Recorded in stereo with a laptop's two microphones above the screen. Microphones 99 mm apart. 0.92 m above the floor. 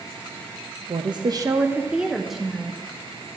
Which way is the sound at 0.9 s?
50° right (ahead or behind).